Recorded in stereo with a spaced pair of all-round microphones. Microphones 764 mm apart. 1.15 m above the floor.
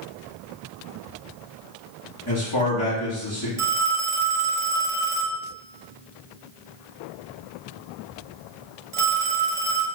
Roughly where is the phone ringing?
Right.